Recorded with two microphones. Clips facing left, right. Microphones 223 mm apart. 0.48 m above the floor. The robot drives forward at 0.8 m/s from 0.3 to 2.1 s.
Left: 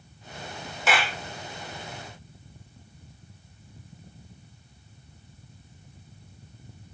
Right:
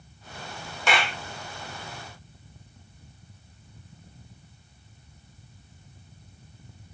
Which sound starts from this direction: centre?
A clap, at 0.9 s.